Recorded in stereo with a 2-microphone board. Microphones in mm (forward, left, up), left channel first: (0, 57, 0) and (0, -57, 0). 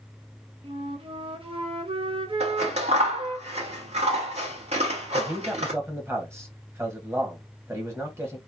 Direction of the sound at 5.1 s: 25° right (ahead or behind).